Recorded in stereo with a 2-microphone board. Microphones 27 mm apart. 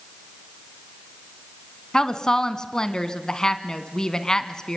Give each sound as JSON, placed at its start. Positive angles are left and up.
{"t": 1.9, "sound": "a woman speaking", "side_deg": 25, "distance_m": 1.3}